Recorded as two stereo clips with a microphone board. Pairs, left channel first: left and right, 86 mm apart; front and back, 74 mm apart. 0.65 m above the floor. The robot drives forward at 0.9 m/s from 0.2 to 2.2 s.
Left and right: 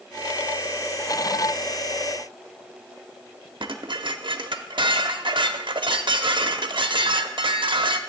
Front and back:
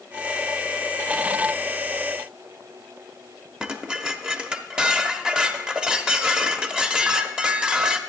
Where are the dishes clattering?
105° right, 0.6 m.